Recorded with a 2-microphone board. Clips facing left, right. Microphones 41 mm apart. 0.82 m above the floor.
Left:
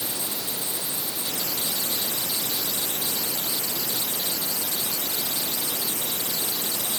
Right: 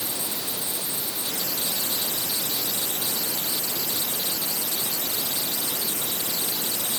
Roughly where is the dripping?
I don't hear dripping.